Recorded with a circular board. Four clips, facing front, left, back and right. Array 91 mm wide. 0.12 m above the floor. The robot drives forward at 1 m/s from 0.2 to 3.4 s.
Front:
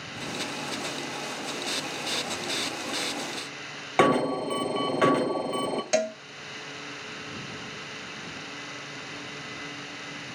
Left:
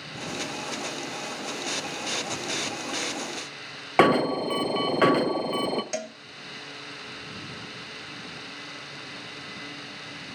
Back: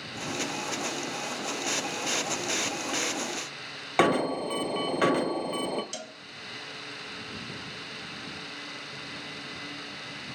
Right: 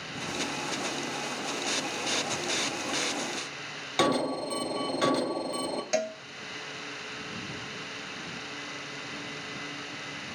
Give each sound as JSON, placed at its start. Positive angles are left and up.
{"t": 4.0, "sound": "an alarm", "azimuth_deg": 85, "distance_m": 0.9}
{"t": 5.9, "sound": "a cowbell", "azimuth_deg": -10, "distance_m": 0.6}